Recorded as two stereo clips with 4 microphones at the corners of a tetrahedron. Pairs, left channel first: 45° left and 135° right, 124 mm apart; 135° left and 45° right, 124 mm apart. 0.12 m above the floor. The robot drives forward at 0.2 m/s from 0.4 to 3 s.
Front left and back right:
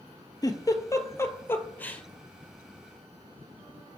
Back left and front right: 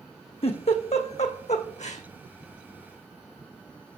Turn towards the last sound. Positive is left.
turn(degrees=135)